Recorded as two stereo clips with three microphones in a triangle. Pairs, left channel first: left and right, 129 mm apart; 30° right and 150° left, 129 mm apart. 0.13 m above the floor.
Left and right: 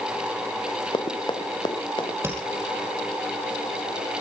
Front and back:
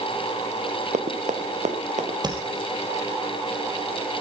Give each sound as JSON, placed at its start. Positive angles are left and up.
{"t": 0.9, "sound": "running footsteps", "azimuth_deg": 140, "distance_m": 1.5}
{"t": 2.2, "sound": "tapping", "azimuth_deg": -160, "distance_m": 2.5}